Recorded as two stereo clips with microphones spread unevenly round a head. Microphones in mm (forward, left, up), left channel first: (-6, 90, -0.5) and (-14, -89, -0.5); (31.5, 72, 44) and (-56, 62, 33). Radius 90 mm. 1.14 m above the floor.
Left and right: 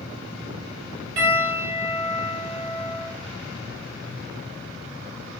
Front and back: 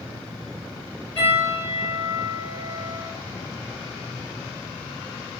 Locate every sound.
1.2 s a piano: 70° right, 2.5 m